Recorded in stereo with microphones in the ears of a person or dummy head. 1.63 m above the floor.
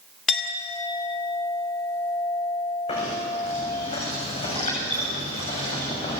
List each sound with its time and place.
0.3 s a clink: centre (ahead or behind), 2.5 m
2.9 s knocking: 25° left (ahead or behind), 9 m